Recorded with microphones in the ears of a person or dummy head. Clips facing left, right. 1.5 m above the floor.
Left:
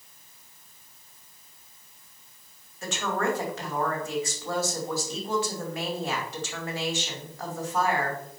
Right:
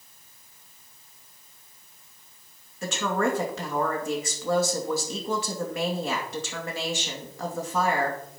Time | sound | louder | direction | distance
2.8 | a woman speaking | right 2 dB | 75° right (ahead or behind) | 2.5 m